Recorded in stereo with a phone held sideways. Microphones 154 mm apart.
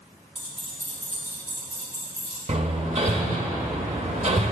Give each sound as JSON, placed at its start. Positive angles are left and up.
{"t": 0.3, "sound": "keys jangling", "side_deg": -40, "distance_m": 1.2}
{"t": 2.5, "sound": "hammering", "side_deg": -45, "distance_m": 0.7}